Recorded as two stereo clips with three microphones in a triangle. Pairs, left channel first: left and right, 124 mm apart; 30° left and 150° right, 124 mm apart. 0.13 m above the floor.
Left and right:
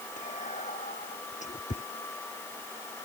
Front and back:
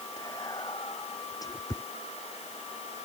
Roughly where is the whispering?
Left.